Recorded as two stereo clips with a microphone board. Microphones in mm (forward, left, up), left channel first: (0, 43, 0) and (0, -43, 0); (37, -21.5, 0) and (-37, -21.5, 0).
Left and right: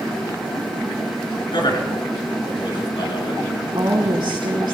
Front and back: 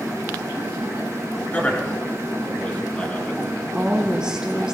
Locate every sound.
1.5 s a man speaking: 70° left, 4 m
3.7 s a woman speaking: 100° right, 3 m